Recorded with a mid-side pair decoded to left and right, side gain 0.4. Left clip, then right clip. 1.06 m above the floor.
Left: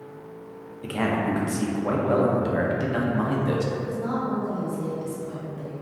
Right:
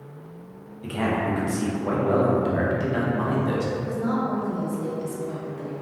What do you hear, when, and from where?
0.8 s a man speaking: 30° left, 0.7 m
3.8 s a woman speaking: 15° right, 1.1 m